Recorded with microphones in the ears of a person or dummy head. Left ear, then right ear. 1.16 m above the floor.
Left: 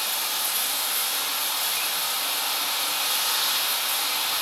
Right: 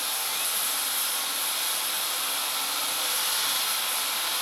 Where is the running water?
10° left (ahead or behind), 3.5 m.